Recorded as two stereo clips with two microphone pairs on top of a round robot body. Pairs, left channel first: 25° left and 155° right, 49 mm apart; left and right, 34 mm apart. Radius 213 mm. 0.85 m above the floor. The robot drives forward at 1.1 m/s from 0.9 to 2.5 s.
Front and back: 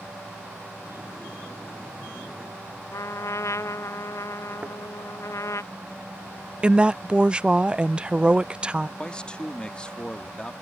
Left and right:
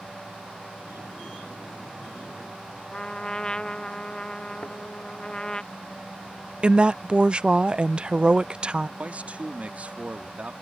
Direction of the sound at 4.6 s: 140° left.